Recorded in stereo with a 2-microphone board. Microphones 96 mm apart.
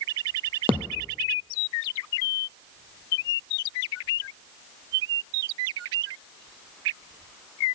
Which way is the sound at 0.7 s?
70° right (ahead or behind).